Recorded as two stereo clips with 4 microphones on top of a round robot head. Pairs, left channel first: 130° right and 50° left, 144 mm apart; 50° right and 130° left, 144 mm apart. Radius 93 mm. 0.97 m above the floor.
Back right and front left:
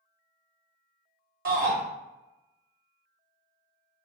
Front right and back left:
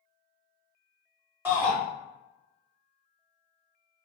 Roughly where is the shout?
Ahead left.